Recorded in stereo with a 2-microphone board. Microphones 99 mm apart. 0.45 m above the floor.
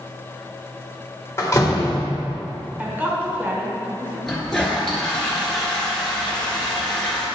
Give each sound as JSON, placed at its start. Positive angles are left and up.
{"t": 1.4, "sound": "a door slam", "side_deg": 30, "distance_m": 1.2}
{"t": 2.8, "sound": "a woman speaking", "side_deg": -20, "distance_m": 1.5}
{"t": 4.3, "sound": "a toilet flushing", "side_deg": 5, "distance_m": 1.6}